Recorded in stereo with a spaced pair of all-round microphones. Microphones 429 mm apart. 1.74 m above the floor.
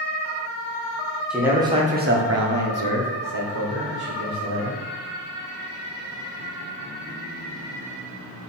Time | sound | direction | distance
1.3 | a man speaking | centre (ahead or behind) | 0.9 m